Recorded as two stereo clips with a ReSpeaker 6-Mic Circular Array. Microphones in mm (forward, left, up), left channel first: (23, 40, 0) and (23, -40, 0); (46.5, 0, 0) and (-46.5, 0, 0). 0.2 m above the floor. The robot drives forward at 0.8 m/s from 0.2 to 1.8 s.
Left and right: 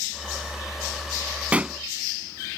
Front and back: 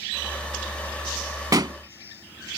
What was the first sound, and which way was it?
A pop, 155° right.